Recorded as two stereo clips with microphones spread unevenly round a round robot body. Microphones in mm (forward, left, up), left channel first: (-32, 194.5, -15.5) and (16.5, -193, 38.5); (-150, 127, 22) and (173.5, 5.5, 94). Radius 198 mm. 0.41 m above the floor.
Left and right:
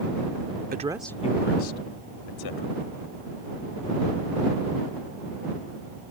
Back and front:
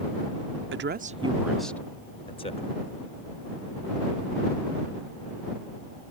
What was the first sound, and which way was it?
A woman speaking, 35° right.